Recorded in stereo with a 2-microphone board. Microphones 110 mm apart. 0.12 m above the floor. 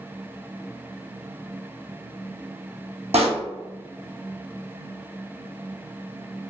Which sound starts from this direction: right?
A pop, at 3.1 s.